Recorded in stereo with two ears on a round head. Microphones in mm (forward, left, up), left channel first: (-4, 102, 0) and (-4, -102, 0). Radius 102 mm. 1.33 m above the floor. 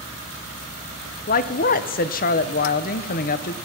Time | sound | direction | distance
1.3 | a woman speaking | 40° left (ahead or behind) | 0.7 m